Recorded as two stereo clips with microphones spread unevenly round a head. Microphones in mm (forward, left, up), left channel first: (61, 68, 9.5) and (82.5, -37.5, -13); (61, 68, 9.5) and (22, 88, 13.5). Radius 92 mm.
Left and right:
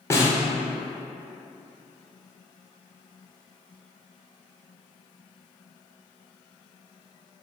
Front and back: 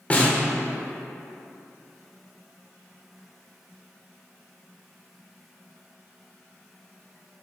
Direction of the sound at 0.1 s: 35° left.